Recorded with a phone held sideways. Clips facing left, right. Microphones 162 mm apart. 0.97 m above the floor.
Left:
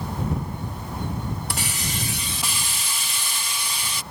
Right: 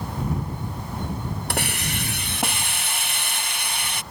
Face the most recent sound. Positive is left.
turn(degrees=-60)  # may be behind; listen again after turning